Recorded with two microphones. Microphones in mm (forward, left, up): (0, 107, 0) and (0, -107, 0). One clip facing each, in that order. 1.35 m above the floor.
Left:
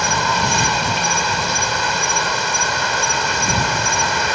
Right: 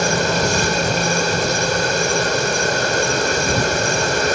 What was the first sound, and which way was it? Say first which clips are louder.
An insect: right 4 dB; 45° right (ahead or behind).